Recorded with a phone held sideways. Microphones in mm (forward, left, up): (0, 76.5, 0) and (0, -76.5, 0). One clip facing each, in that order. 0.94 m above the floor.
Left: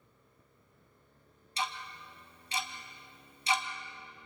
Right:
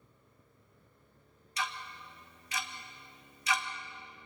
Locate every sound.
1.6 s ticking: 30° left (ahead or behind), 1.3 m